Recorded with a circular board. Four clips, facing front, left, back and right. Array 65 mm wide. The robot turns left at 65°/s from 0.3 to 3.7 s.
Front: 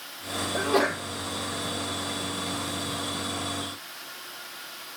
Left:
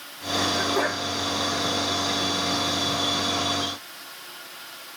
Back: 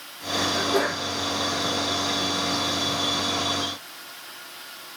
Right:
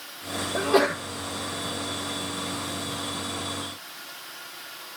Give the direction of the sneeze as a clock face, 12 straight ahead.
2 o'clock.